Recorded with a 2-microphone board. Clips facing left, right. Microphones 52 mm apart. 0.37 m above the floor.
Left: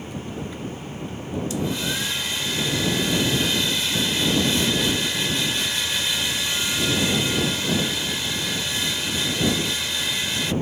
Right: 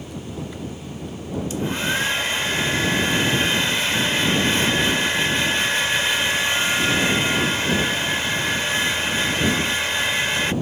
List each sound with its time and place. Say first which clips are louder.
1.5 s a hair dryer: right 4 dB; 35° right (ahead or behind)